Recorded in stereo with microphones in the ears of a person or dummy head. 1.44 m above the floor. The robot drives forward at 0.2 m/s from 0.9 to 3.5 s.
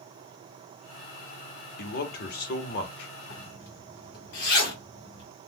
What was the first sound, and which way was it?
A man speaking, 60° left (ahead or behind).